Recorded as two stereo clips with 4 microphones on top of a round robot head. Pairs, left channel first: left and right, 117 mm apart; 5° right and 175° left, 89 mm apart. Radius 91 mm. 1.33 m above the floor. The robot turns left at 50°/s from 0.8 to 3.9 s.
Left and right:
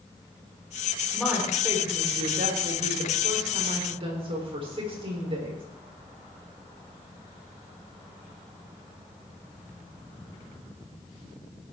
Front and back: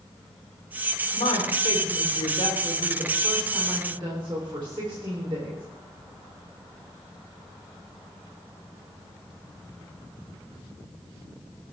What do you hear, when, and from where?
1.1 s a woman speaking: 5° left, 4.5 m; by 5.6 s 130° right, 4.5 m